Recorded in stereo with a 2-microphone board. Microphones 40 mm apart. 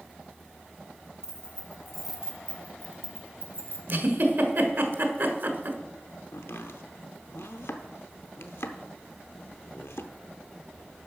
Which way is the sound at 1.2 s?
15° left (ahead or behind).